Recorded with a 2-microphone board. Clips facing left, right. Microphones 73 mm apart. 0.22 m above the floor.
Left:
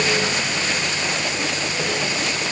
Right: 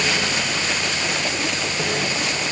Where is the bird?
No bird in this recording.